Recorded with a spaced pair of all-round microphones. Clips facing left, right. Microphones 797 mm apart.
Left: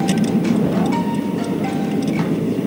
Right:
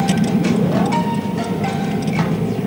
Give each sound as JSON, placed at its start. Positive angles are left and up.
{"t": 0.0, "sound": "a vehicle", "side_deg": -25}